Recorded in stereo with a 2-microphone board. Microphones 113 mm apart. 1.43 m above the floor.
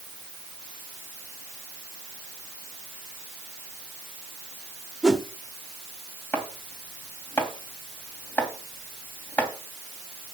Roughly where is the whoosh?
Centre.